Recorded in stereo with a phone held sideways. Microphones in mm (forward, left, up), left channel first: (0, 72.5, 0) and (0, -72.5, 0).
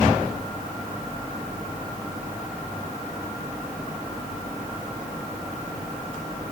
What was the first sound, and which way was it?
Only background noise.